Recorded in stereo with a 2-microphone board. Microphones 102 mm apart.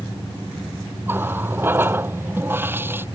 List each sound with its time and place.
1.1 s a running tap: 20° right (ahead or behind)